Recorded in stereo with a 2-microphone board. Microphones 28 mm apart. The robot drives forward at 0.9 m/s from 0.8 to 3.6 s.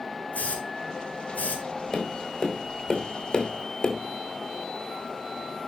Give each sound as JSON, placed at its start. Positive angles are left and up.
{"t": 0.3, "sound": "a hiss", "side_deg": 65, "distance_m": 4.5}
{"t": 1.9, "sound": "tapping", "side_deg": 20, "distance_m": 3.5}